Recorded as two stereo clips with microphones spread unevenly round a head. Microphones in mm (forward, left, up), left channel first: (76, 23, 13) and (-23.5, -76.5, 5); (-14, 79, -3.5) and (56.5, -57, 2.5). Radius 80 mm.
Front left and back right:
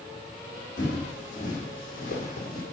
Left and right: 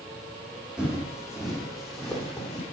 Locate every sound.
0.8 s footsteps: 20° left, 5 m; by 2.6 s 35° left, 4 m